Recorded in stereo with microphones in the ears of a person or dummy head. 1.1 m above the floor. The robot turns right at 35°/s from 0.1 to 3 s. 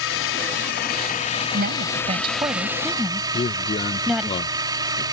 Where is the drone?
100° left; by 5.2 s 160° right.